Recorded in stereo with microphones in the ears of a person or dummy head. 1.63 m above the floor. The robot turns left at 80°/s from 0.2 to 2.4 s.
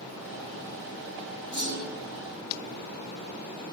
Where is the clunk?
155° right, 1.0 m; by 2.0 s 170° left, 1.0 m.